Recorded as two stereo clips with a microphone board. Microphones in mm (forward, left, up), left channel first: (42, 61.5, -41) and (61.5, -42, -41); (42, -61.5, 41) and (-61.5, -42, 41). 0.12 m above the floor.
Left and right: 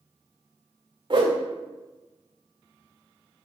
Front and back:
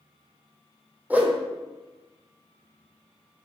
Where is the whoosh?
115° right, 1.4 m.